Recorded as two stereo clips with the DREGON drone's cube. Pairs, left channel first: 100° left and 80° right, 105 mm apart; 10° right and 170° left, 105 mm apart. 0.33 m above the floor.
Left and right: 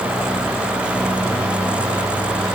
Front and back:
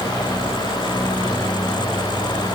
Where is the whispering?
I don't hear whispering.